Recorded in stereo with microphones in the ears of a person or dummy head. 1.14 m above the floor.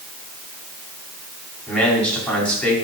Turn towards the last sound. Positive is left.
turn(degrees=10)  # may be behind; listen again after turning